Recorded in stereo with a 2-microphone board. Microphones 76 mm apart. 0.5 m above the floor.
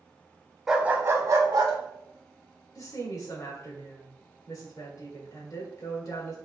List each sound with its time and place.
0.7 s a dog barking: 5° right (ahead or behind), 0.5 m; by 1.7 s 55° right (ahead or behind), 0.9 m
2.8 s a woman speaking: 55° left (ahead or behind), 1.6 m